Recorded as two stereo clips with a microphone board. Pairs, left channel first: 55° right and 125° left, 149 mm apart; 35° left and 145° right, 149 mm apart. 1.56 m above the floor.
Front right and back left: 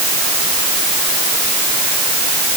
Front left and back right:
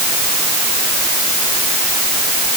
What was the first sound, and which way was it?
Only background noise.